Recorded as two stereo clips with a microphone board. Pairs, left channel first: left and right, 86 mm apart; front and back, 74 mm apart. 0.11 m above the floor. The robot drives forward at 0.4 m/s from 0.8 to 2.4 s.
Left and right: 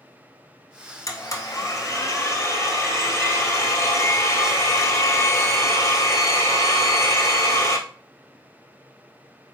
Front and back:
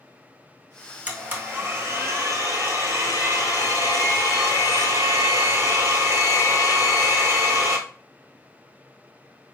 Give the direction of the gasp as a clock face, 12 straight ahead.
No gasp in this recording.